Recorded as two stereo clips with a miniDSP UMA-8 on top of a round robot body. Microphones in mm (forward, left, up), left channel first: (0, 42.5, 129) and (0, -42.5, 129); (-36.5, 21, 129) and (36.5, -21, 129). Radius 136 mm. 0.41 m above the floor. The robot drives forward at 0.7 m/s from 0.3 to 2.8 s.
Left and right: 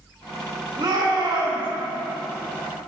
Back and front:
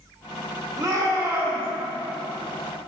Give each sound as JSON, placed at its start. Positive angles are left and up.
{"t": 0.8, "sound": "a shout", "azimuth_deg": -70, "distance_m": 2.0}